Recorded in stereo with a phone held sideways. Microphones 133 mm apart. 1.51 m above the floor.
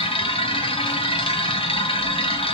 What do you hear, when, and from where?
0.0 s a machine running: 45° left (ahead or behind), 1.1 m